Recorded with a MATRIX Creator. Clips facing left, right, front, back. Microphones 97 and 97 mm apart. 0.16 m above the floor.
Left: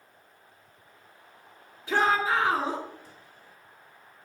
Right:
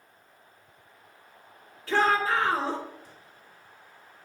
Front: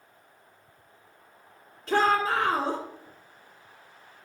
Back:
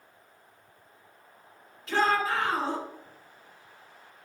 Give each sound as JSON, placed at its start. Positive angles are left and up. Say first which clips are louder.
{"t": 1.9, "sound": "a shout", "louder": "even, front 2 dB", "azimuth_deg": 25, "distance_m": 2.0}